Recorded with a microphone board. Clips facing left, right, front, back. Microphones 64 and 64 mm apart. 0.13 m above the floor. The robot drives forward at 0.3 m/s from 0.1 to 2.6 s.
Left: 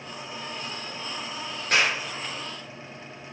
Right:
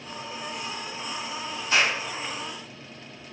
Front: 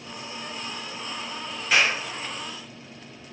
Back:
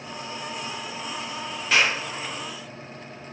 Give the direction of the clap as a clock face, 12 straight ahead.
9 o'clock.